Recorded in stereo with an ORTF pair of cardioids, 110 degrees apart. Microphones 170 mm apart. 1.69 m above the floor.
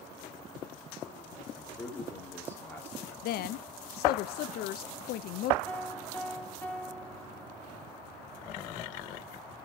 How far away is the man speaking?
About 4 m.